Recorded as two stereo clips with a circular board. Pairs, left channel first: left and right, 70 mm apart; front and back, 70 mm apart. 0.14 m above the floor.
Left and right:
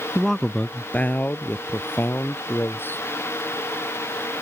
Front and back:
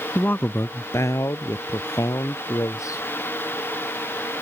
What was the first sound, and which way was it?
A man speaking, straight ahead.